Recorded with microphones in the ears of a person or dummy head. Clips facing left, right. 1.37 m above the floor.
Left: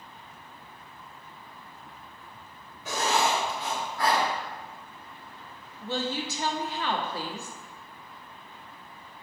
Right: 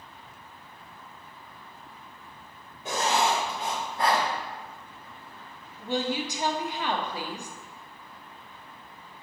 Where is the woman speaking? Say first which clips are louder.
Right 2 dB; 15° right (ahead or behind), 0.7 m.